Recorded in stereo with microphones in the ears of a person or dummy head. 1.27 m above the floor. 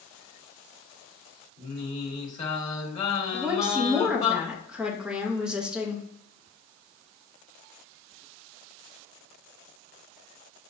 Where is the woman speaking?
5° right (ahead or behind), 0.6 m.